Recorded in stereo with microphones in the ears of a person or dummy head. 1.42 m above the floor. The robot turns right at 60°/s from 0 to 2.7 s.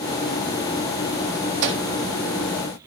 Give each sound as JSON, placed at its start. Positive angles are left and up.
{"t": 1.6, "sound": "a microwave", "side_deg": -75, "distance_m": 2.0}